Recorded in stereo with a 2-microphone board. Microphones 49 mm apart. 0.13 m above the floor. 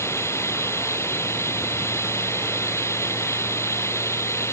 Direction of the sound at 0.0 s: 65° left (ahead or behind).